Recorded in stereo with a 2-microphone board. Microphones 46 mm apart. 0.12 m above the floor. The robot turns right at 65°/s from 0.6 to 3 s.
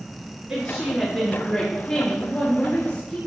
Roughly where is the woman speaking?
Ahead right.